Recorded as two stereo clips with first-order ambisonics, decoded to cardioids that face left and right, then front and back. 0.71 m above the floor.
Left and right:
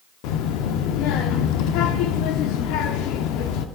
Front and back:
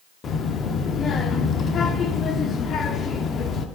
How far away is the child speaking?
About 0.6 m.